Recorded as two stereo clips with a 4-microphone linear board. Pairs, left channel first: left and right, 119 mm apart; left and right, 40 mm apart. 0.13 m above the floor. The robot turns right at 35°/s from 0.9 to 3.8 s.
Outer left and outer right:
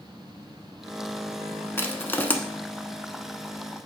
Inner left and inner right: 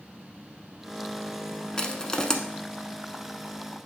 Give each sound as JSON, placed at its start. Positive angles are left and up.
{"t": 1.8, "sound": "crushing", "side_deg": 20, "distance_m": 0.6}